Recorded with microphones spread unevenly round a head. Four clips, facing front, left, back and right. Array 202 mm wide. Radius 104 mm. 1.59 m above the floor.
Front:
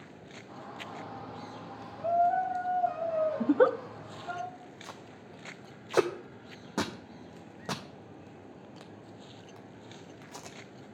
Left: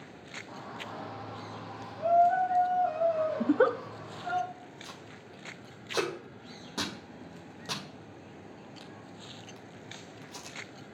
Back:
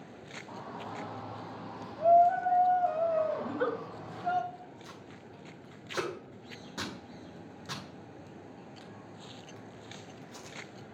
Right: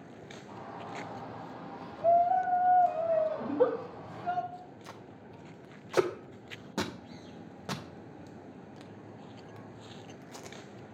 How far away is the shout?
About 3 m.